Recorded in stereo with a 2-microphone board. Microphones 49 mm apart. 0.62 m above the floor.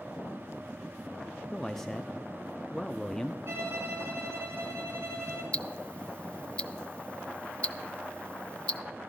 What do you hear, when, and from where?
1.5 s a man speaking: 5° left (ahead or behind), 0.6 m
3.5 s a violin: 65° right (ahead or behind), 4 m
5.5 s ticking: 20° left (ahead or behind), 0.5 m